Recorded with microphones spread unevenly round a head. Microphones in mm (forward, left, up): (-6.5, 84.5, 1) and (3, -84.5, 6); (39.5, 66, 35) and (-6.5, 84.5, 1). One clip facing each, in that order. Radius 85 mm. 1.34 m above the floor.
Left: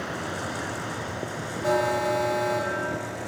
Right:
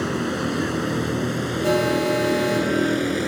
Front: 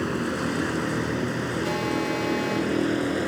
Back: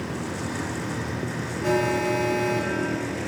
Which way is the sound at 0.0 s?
60° right.